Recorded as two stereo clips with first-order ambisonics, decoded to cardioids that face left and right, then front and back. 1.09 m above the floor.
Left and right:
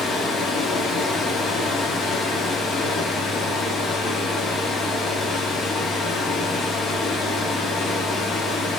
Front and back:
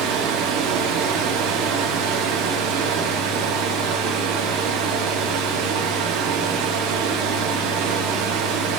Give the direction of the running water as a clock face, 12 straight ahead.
7 o'clock.